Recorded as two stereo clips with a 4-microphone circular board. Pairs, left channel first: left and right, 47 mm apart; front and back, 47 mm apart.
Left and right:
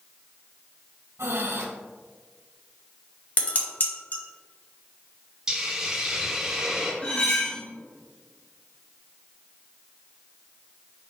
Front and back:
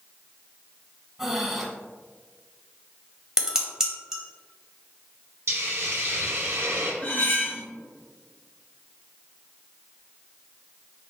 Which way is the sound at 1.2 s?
100° right.